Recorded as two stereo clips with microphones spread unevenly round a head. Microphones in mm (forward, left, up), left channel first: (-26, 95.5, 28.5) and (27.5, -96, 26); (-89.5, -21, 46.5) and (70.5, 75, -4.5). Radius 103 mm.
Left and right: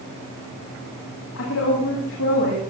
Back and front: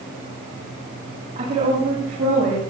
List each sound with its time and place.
1.4 s a woman speaking: 85° left, 8.5 m